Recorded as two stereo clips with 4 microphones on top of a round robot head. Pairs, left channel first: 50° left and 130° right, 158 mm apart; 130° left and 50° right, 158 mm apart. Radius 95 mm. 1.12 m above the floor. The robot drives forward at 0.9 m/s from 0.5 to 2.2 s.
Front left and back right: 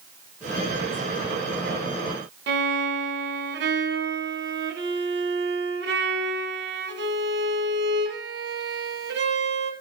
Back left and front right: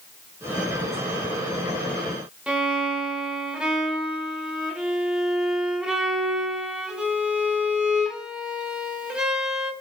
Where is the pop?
No pop in this recording.